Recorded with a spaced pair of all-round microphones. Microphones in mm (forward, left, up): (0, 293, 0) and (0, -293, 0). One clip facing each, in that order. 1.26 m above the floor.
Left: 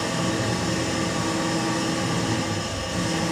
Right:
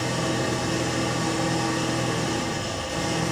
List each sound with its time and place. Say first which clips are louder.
0.0 s an engine running: left 1 dB; 80° left, 5 m